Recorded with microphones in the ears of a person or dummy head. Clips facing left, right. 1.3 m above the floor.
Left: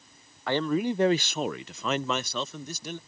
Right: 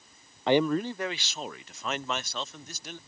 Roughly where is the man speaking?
Right.